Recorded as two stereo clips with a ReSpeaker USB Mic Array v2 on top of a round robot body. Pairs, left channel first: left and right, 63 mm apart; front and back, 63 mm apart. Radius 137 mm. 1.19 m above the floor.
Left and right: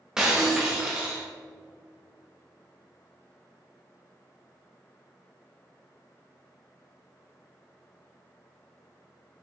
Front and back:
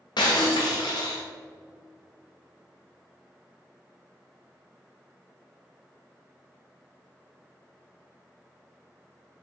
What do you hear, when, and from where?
0.2 s breaking glass: 10° right, 0.7 m